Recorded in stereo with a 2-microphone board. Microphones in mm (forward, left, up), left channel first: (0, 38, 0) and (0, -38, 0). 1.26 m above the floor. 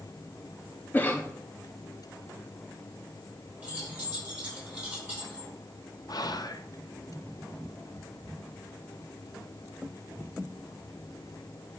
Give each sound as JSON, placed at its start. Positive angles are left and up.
{"t": 0.9, "sound": "a cough", "side_deg": 25, "distance_m": 0.6}
{"t": 3.6, "sound": "keys jangling", "side_deg": -20, "distance_m": 4.0}
{"t": 6.1, "sound": "whispering", "side_deg": 60, "distance_m": 0.6}